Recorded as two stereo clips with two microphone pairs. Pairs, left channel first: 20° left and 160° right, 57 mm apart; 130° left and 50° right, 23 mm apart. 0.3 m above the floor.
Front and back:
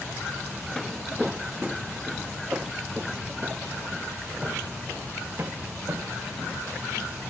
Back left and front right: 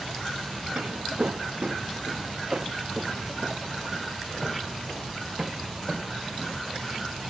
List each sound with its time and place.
0.8 s footsteps: 65° right; by 7.2 s 120° right